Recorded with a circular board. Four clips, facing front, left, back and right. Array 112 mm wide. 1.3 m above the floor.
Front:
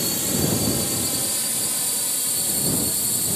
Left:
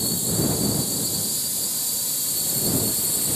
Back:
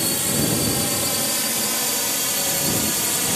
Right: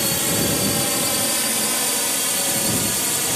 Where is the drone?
110° right; by 3.4 s 135° right.